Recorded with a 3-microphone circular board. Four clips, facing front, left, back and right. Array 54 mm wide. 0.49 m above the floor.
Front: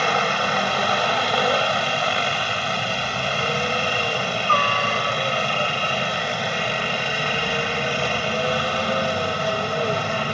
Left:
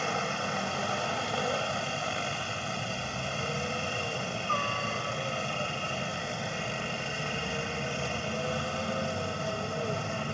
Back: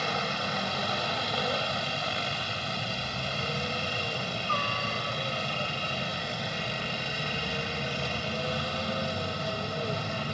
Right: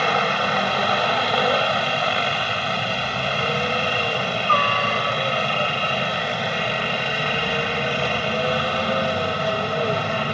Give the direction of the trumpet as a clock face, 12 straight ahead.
I don't hear a trumpet.